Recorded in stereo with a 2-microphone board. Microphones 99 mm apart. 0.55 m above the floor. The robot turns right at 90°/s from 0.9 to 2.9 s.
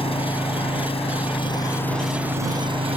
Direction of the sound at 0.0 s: 75° left.